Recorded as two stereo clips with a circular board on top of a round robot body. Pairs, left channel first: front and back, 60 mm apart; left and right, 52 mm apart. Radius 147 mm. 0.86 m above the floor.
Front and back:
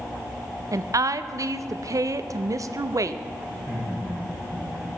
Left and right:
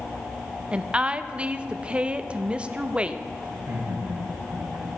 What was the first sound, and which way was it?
A woman speaking, 160° right.